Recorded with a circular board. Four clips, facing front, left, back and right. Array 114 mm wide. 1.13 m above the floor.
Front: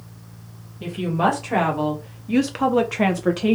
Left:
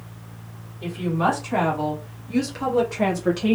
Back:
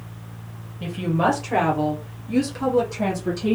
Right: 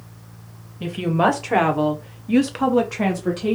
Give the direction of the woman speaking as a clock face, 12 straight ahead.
3 o'clock.